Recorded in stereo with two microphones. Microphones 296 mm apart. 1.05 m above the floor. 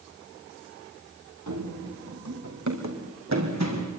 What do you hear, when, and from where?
1.5 s running footsteps: 70° right (ahead or behind), 3 m; by 4.0 s 60° right (ahead or behind), 4 m